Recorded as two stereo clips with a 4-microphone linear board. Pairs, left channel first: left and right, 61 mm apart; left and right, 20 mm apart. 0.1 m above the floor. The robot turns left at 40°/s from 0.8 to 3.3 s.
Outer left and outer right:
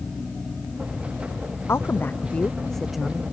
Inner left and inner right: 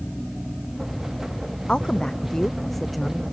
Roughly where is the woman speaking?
Ahead left.